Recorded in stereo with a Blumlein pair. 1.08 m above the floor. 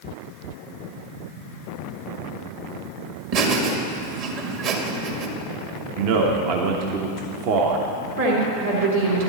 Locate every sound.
3.3 s laughter: 45° right, 1.9 m
6.0 s a man speaking: 45° right, 1.1 m
8.2 s a woman speaking: 65° right, 3 m